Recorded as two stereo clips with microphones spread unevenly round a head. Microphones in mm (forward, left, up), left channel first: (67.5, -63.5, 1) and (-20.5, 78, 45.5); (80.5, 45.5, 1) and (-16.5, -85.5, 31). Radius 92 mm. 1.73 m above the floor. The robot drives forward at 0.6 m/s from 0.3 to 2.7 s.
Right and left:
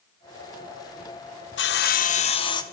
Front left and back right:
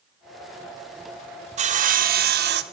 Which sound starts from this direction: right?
Sawing, at 1.6 s.